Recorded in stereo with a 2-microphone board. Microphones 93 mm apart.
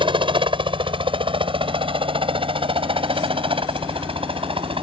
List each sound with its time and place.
0.0 s a helicopter: 65° right (ahead or behind); by 4.8 s 75° right (ahead or behind)